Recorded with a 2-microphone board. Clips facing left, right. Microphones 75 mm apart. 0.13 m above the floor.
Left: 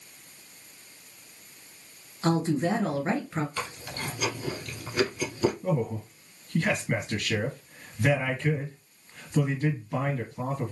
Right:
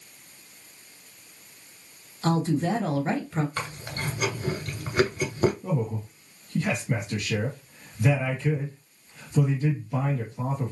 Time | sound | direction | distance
2.2 | a woman speaking | 25° left (ahead or behind) | 1.8 m
3.6 | chewing | 40° right (ahead or behind) | 1.1 m
5.6 | a man speaking | 50° left (ahead or behind) | 2.5 m